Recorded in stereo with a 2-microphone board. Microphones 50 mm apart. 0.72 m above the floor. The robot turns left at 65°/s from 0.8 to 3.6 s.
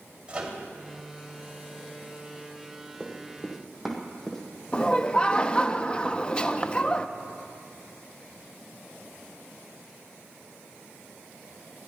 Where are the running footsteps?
20° left (ahead or behind), 2 m; by 4.4 s 15° left (ahead or behind), 2 m.